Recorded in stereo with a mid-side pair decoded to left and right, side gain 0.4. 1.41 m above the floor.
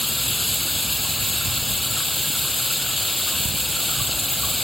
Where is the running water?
5° left.